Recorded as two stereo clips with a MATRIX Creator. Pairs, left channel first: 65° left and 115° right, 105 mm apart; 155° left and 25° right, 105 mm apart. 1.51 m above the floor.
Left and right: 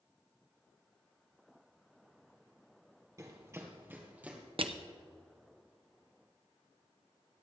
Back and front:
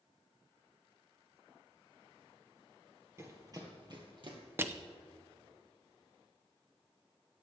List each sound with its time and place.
3.2 s running footsteps: 70° right, 2 m; by 4.4 s 40° right, 2.5 m
4.6 s crushing: 90° right, 0.6 m